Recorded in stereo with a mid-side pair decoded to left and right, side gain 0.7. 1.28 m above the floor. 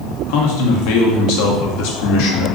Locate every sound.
0.3 s a man speaking: 70° left, 0.9 m